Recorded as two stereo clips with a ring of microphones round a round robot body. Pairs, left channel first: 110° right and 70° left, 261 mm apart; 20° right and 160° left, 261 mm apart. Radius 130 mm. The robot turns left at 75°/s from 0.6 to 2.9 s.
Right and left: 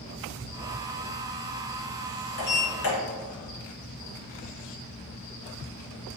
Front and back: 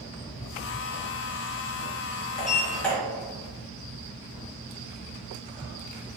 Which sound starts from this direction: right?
A sliding door, at 2.4 s.